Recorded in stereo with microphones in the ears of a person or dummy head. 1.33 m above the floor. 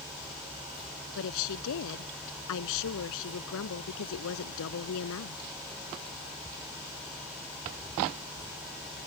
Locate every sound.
1.1 s a woman speaking: 70° left (ahead or behind)